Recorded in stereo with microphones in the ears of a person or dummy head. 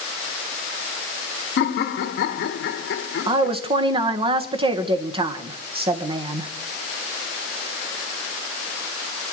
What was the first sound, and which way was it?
Laughter, 60° left (ahead or behind).